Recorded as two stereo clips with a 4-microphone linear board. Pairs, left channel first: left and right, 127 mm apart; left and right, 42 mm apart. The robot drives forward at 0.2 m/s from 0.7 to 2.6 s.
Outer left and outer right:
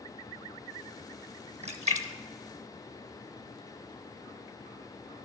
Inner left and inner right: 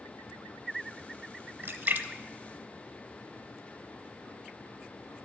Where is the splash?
55° right (ahead or behind), 0.8 m; by 3.6 s 70° right (ahead or behind), 0.7 m.